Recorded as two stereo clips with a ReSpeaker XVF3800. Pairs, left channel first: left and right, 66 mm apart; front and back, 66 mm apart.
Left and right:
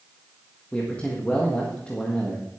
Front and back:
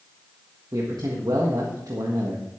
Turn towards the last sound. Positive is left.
turn(degrees=160)